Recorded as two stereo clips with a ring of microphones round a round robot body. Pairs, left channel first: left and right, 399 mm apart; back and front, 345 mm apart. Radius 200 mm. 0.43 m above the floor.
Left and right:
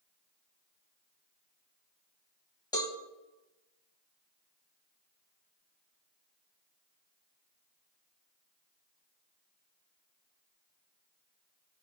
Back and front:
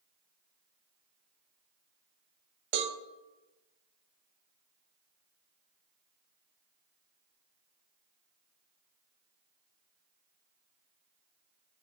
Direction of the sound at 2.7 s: 10° left.